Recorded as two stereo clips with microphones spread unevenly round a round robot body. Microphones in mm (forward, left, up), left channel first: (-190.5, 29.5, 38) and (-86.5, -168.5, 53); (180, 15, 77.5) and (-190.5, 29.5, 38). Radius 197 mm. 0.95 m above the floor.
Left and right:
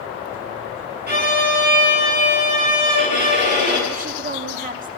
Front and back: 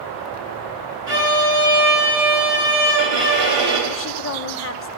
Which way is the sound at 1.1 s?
100° right.